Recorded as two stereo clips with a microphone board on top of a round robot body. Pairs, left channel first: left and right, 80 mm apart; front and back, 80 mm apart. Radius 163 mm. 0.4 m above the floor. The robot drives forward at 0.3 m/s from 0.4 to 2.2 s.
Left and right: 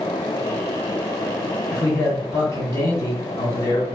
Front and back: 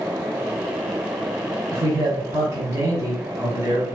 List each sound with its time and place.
1.7 s a man speaking: 145° left, 2.0 m